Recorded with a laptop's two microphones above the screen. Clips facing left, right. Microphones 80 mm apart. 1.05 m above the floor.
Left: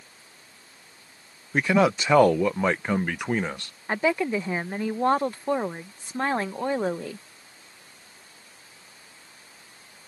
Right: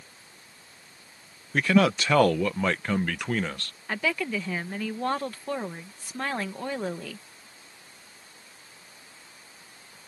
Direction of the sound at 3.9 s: 30° left (ahead or behind).